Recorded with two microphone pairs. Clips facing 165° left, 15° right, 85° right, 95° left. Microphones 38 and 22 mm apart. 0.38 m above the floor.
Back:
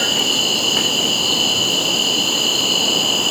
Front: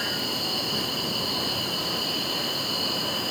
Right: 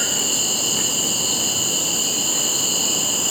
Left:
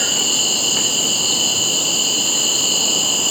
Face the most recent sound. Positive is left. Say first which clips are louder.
# back 11 dB, left 4 dB
turn(degrees=165)